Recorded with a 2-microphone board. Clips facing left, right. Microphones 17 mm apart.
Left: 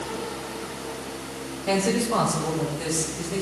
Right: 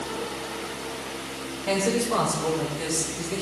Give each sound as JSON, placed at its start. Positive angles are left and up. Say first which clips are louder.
{"t": 1.7, "sound": "a man speaking", "louder": "left 1 dB", "side_deg": -15, "distance_m": 5.0}